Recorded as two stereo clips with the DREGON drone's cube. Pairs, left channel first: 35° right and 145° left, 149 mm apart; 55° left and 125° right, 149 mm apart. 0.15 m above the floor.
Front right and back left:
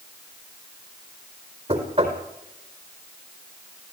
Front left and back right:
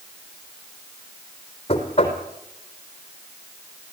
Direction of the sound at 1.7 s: 105° left.